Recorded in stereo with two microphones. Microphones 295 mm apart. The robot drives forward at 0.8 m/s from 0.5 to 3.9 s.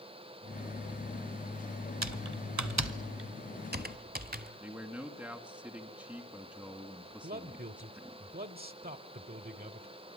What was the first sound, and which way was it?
Typing on a keyboard, 65° right (ahead or behind).